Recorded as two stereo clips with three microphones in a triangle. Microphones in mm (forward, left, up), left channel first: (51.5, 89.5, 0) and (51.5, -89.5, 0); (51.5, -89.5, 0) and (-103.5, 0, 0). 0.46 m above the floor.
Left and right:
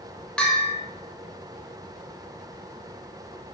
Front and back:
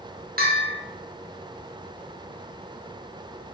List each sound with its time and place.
0.4 s a bell: 175° left, 0.8 m